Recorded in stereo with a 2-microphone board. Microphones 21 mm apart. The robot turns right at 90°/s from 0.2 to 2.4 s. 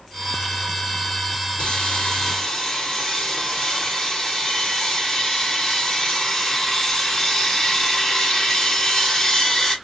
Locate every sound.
1.6 s sawing: 80° left, 3.5 m; by 9.8 s 155° left, 3.5 m